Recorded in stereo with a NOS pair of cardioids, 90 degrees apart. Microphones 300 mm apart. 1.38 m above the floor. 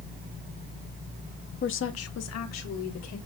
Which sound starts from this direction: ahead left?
A woman speaking, at 1.6 s.